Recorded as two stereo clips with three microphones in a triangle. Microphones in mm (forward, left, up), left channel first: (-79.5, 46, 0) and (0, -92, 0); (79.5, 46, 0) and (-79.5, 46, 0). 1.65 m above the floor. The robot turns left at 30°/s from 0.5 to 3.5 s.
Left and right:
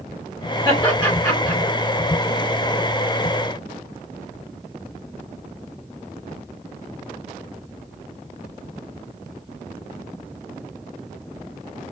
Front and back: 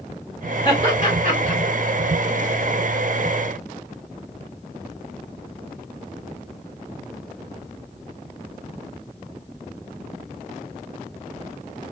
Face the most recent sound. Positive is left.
turn(degrees=-35)